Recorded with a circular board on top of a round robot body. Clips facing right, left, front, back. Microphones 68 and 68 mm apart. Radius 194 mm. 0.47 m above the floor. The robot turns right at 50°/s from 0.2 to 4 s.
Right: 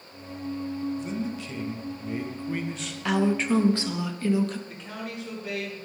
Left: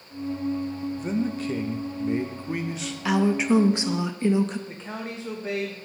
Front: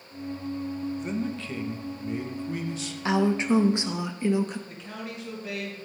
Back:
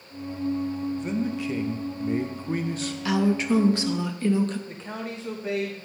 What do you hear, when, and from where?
1.0 s a man speaking: 85° left, 0.8 m; by 3.0 s 175° right, 0.8 m
3.0 s a woman speaking: 10° left, 0.8 m; by 4.6 s 55° left, 0.8 m
4.7 s a man speaking: 135° left, 1.0 m